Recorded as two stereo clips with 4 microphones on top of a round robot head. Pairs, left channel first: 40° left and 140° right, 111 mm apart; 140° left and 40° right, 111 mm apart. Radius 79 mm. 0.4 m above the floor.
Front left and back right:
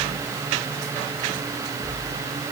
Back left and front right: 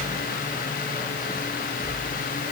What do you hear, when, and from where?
Only background noise.